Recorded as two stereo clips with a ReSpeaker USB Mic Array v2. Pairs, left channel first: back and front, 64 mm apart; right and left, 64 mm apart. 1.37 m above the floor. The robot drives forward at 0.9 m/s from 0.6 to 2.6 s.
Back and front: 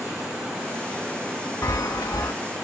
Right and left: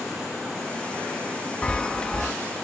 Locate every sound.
1.6 s a chime: 160° right, 0.6 m; by 2.3 s 170° right, 1.2 m